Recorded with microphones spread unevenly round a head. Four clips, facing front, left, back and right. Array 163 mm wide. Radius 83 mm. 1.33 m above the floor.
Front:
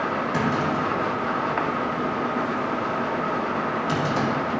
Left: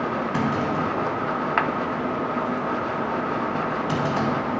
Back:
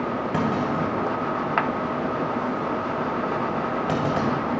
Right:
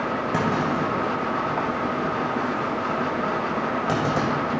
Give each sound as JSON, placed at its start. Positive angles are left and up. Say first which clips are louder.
{"t": 0.3, "sound": "a clunk", "louder": "right 2 dB, back 1 dB", "azimuth_deg": -135, "distance_m": 2.5}